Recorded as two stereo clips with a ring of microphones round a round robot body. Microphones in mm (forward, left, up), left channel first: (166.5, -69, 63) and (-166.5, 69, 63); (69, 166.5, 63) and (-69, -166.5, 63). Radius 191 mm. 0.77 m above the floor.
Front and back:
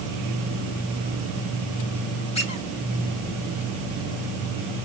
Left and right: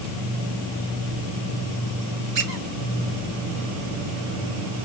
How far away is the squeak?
About 1.7 m.